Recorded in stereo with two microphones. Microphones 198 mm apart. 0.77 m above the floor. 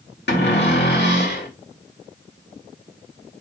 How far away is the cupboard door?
About 1.9 m.